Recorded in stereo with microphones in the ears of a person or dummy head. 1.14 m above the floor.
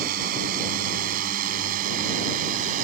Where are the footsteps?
I don't hear footsteps.